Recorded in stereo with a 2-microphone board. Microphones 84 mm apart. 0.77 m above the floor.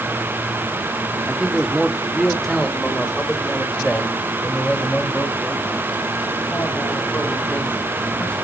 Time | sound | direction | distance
1.3 | a man speaking | 10° right (ahead or behind) | 1.4 m